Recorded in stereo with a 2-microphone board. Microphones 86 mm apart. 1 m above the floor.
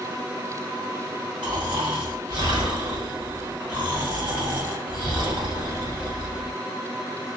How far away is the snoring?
About 1.8 m.